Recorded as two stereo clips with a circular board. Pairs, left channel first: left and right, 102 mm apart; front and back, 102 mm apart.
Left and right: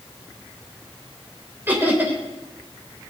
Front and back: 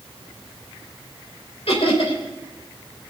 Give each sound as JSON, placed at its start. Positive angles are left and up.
{"t": 1.7, "sound": "laughter", "azimuth_deg": -20, "distance_m": 5.0}